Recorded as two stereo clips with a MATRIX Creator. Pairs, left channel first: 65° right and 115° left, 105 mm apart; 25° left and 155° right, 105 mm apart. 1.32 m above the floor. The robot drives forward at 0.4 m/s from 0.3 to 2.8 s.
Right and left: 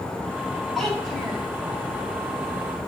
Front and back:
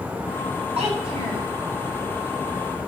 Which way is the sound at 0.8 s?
155° right.